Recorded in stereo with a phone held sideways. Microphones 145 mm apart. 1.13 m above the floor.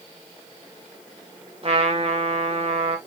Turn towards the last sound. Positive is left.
turn(degrees=-45)  # may be behind; listen again after turning